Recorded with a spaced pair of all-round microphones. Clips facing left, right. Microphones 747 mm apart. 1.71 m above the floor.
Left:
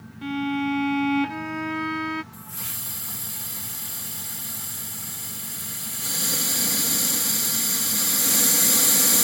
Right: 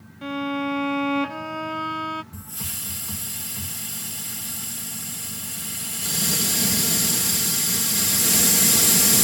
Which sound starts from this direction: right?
A hiss, at 2.3 s.